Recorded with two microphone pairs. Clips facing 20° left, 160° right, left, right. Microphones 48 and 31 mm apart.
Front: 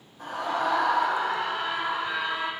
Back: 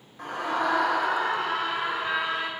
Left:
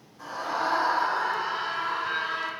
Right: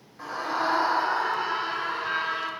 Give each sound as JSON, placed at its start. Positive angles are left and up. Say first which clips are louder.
{"t": 0.2, "sound": "a scream", "louder": "even, right 1 dB", "azimuth_deg": -145, "distance_m": 4.0}